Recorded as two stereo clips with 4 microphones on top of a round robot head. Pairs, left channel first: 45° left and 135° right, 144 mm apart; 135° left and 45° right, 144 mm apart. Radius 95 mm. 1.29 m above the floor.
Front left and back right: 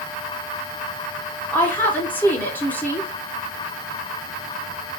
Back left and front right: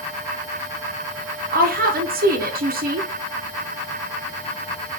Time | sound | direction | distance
1.5 | a woman speaking | 35° right | 0.8 m